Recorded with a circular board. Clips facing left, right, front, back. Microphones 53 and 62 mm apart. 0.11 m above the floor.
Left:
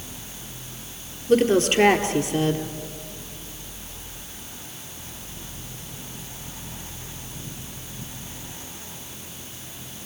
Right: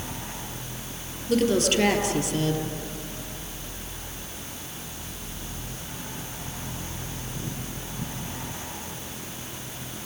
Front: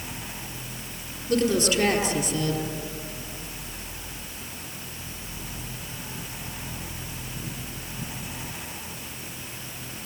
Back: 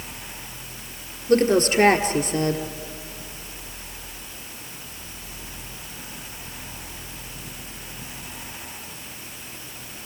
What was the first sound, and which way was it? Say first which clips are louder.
A woman speaking: left 4 dB, back 5 dB; 145° left.